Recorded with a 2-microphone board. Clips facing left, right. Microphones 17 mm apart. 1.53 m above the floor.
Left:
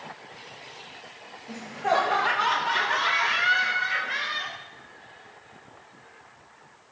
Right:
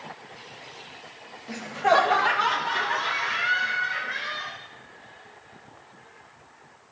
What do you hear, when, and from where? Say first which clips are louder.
1.5 s laughter: right 4 dB; 35° right (ahead or behind), 1.7 m; by 4.6 s 60° left (ahead or behind), 3 m